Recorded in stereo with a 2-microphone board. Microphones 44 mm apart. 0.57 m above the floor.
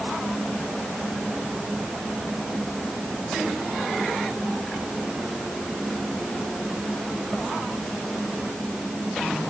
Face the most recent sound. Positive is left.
No sound to turn to.